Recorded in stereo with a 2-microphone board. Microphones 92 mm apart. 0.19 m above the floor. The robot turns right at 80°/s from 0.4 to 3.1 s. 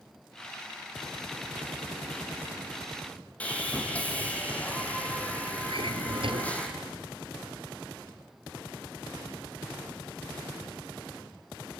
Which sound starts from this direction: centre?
Sawing, at 3.4 s.